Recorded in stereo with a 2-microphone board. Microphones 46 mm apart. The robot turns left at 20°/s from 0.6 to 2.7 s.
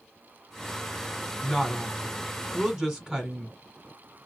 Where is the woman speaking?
5° left (ahead or behind), 1.4 m; by 3.5 s 15° right (ahead or behind), 1.4 m.